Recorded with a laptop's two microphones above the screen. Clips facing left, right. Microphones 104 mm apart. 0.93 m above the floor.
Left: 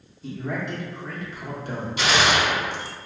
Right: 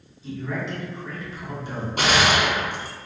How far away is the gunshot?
About 0.5 m.